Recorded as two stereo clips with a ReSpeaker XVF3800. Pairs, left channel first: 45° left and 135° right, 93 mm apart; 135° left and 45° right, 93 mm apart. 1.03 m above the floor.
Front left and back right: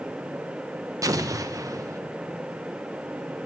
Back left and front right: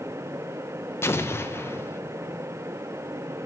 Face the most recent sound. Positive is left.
turn(degrees=-170)